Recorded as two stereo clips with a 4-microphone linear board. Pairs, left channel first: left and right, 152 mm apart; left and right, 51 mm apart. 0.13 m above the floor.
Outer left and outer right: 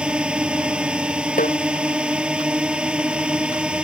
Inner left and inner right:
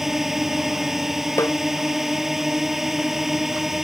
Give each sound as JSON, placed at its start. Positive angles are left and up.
{"t": 0.0, "sound": "a drone", "side_deg": -5}
{"t": 1.4, "sound": "a snare drum", "side_deg": 60}